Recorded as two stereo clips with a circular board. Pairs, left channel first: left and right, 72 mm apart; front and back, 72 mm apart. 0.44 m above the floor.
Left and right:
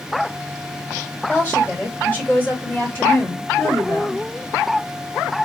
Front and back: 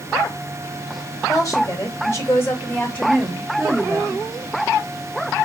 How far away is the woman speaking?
About 2.5 m.